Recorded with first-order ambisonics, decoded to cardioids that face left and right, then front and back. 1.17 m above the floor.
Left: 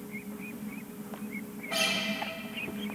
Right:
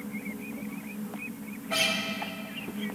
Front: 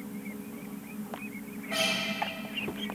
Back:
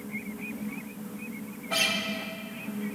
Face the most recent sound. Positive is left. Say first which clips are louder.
# right 2 dB, back 2 dB
turn(degrees=-150)